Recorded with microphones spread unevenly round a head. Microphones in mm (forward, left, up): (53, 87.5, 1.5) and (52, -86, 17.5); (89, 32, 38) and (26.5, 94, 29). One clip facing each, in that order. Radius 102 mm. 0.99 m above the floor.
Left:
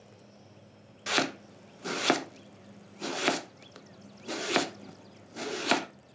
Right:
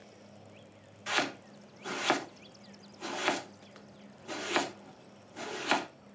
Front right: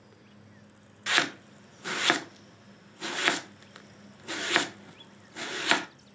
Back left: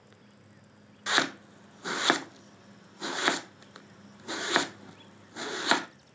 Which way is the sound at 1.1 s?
75° left.